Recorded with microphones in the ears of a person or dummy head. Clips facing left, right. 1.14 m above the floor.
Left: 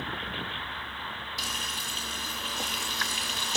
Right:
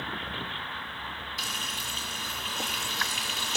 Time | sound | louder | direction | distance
1.4 | frying | even | 5° right (ahead or behind) | 7 m